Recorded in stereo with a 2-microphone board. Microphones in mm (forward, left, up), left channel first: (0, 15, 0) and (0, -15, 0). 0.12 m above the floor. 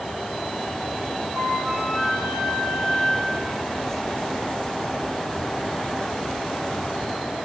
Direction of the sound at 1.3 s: 45° right (ahead or behind).